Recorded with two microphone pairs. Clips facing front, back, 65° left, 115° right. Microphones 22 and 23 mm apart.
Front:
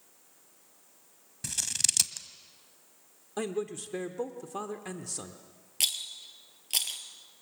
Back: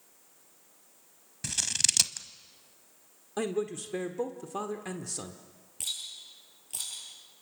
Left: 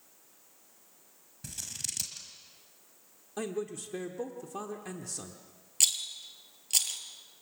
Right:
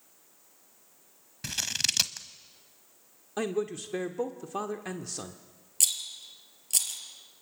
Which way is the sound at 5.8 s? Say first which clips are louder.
Front 5 dB, left 1 dB; 5° right.